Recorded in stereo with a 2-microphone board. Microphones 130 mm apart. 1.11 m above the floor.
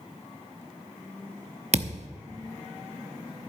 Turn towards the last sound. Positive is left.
turn(degrees=-60)  # may be behind; listen again after turning